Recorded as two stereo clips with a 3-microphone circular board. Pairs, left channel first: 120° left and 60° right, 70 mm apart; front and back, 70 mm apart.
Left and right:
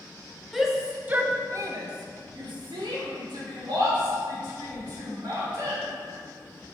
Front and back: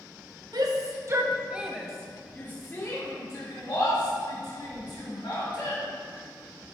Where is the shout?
145° right, 0.9 m; by 5.8 s 30° right, 3 m.